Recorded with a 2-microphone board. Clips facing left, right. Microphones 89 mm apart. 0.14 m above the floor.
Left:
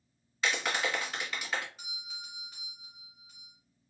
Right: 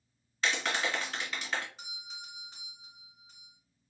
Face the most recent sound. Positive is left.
turn(degrees=-20)  # may be behind; listen again after turning